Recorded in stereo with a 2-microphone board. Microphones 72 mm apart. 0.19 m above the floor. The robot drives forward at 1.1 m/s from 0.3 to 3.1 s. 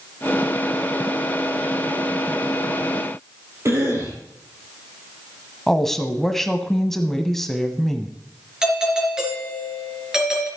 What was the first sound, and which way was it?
A cough, 40° right (ahead or behind).